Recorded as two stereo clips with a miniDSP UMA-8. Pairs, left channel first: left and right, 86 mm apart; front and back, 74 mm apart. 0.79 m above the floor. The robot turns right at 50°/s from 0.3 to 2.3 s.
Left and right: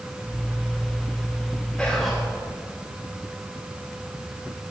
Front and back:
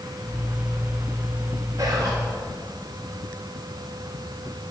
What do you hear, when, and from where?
1.8 s whispering: 175° left, 1.4 m; by 2.2 s 165° right, 1.4 m